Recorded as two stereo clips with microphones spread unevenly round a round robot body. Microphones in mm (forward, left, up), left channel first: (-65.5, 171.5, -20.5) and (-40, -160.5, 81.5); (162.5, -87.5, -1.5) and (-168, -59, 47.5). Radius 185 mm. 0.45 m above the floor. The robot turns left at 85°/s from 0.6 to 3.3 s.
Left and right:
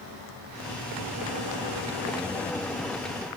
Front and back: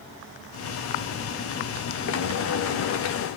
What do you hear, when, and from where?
Only background noise.